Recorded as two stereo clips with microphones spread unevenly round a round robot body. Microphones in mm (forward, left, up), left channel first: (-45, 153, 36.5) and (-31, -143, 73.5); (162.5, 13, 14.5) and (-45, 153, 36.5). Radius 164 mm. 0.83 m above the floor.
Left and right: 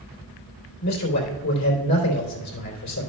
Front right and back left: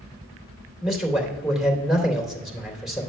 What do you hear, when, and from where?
0.8 s a man speaking: 55° left, 3 m